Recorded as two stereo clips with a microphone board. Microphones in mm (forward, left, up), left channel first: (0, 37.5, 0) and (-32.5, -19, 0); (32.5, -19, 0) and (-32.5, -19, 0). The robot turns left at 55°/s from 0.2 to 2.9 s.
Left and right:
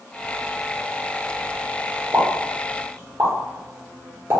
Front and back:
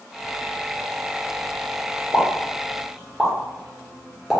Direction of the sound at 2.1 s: 50° right.